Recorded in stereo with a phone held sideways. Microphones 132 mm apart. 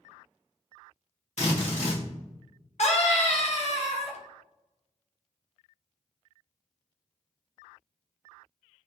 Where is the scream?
55° left (ahead or behind), 0.9 m.